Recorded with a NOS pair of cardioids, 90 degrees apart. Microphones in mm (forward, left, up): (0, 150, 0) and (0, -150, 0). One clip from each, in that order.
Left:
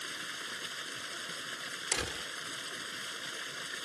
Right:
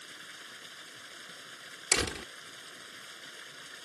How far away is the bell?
No bell in this recording.